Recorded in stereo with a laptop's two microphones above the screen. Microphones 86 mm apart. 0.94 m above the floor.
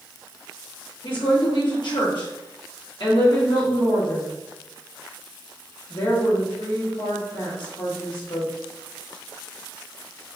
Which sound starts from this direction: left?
A woman speaking, at 1.0 s.